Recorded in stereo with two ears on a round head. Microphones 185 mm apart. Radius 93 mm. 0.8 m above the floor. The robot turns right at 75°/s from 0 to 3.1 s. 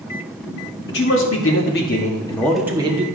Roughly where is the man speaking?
Ahead left.